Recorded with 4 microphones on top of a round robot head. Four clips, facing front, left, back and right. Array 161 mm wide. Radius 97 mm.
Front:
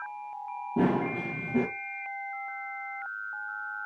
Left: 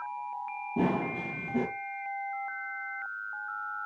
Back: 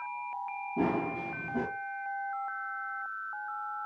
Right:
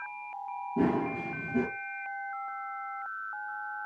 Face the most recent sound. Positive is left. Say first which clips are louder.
# right 1 dB, front 4 dB
turn(degrees=20)